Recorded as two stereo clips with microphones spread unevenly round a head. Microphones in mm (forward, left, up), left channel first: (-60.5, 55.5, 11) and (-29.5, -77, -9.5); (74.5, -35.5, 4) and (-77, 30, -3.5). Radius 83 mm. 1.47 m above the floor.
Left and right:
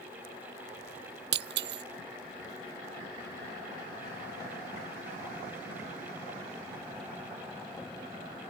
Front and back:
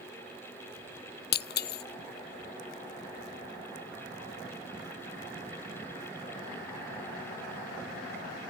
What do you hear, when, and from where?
1.3 s breaking glass: 55° right